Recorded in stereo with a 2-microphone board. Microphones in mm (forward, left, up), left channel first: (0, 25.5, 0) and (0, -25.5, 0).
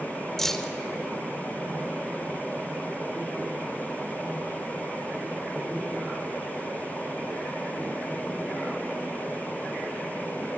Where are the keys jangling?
5° left (ahead or behind), 1.1 m.